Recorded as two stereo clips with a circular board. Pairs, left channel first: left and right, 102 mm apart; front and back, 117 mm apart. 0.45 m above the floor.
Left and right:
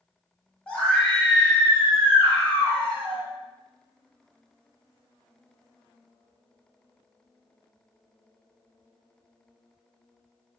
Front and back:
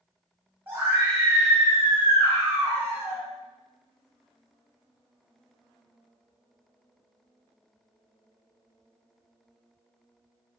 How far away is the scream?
About 1.4 m.